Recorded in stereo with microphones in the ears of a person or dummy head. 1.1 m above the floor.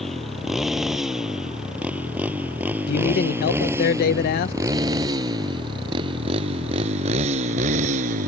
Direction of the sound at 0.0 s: Centre (ahead or behind).